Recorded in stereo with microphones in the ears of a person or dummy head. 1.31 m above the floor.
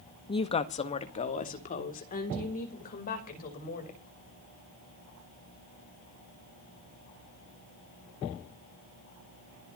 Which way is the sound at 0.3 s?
25° left (ahead or behind).